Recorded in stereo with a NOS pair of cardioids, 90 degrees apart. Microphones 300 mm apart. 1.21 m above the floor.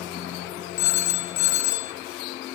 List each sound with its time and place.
0.8 s a phone ringing: 65° left, 1.9 m